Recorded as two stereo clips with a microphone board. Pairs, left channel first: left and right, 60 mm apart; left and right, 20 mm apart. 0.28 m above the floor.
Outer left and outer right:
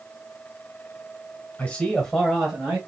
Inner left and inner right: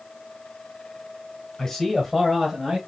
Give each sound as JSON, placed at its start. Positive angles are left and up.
{"t": 1.6, "sound": "a man speaking", "side_deg": 20, "distance_m": 1.5}